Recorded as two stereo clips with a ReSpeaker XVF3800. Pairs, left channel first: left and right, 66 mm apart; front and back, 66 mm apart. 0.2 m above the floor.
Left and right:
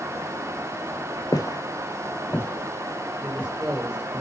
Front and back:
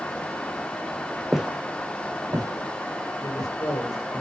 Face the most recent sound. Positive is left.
turn(degrees=-20)